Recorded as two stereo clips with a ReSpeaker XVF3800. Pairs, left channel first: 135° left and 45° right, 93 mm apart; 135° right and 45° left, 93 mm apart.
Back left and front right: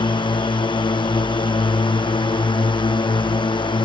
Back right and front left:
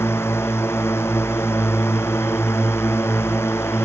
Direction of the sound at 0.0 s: 160° left.